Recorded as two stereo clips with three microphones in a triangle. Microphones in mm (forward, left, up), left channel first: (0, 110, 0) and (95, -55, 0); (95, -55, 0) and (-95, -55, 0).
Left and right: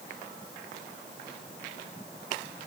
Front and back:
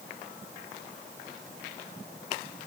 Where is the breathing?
I don't hear breathing.